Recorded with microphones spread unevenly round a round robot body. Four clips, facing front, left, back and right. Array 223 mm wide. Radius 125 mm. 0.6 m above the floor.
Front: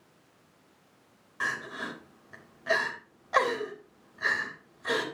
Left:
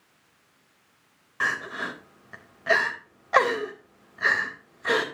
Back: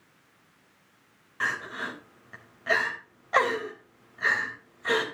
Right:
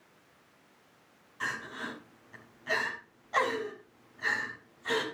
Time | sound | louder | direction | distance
1.4 | crying | left 8 dB, back 2 dB | 110° left | 3.5 m